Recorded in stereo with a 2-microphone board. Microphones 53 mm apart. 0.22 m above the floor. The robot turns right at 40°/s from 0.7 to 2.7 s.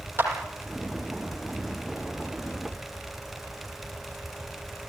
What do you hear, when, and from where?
0.2 s a clap: 55° right (ahead or behind), 6.5 m